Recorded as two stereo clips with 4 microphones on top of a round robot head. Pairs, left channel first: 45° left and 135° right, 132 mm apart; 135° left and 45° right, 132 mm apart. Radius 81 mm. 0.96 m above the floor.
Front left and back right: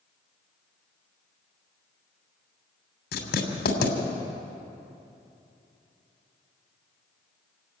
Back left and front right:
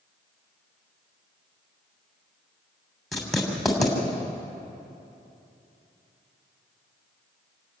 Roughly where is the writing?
Ahead left.